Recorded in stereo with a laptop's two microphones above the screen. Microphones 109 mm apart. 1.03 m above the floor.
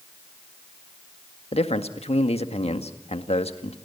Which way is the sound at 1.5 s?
60° left (ahead or behind).